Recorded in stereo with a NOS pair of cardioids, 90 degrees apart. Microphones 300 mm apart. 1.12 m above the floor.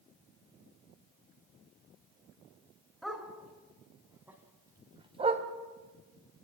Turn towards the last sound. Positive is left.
turn(degrees=-25)